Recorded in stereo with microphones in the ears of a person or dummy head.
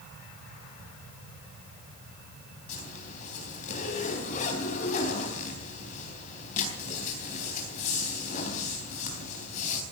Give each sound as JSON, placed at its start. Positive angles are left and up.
{"t": 2.7, "sound": "a zipper", "side_deg": 45, "distance_m": 4.0}